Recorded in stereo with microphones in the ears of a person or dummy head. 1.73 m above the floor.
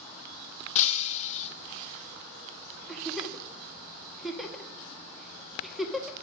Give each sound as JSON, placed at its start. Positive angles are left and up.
{"t": 0.8, "sound": "breaking glass", "side_deg": 45, "distance_m": 1.7}
{"t": 2.9, "sound": "a giggle", "side_deg": 5, "distance_m": 2.0}